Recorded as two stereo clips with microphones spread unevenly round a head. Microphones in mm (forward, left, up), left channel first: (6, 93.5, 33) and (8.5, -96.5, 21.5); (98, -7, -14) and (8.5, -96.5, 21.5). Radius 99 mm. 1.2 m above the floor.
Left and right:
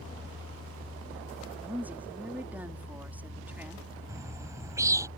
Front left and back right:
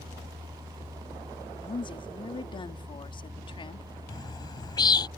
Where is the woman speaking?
5° right.